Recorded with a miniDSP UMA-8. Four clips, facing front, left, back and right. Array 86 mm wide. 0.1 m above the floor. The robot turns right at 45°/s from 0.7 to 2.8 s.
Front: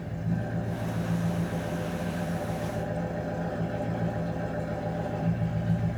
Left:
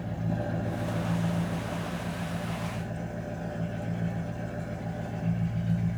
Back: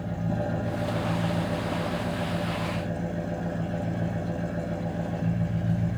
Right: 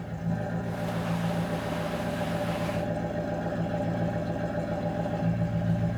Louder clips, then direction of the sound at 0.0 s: Even, back 3 dB; 155° left.